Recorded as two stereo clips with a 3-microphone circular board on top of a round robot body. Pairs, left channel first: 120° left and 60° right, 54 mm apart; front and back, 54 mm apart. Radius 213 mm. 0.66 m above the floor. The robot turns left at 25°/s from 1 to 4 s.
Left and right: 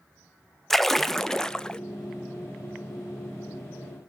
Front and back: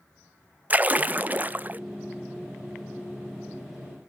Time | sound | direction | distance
0.7 | a splash | 160° right | 0.6 m